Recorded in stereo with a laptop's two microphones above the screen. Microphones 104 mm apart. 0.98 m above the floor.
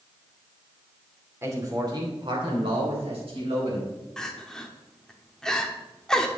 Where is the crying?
5° left (ahead or behind), 1.1 m.